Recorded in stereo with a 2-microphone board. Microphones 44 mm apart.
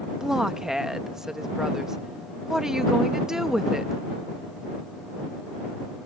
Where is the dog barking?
I don't hear a dog barking.